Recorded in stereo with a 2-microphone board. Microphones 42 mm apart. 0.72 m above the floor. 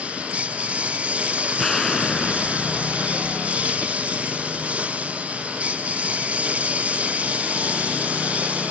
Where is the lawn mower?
35° right (ahead or behind).